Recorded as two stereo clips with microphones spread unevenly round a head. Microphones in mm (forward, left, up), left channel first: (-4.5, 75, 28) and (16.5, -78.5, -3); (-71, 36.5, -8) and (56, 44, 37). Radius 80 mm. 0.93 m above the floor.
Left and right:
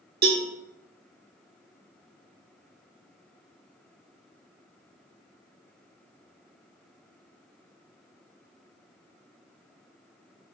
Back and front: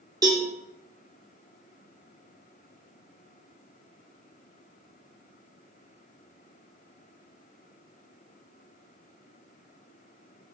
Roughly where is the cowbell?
Right.